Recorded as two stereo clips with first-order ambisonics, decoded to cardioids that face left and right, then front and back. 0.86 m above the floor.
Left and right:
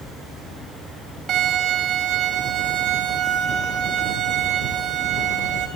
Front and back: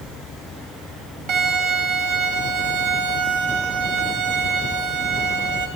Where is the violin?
145° right, 0.9 m.